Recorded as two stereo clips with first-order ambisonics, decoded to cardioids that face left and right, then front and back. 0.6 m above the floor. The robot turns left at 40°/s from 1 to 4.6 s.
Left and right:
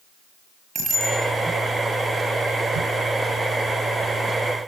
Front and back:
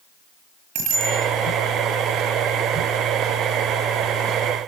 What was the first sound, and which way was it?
A bicycle bell, 155° right.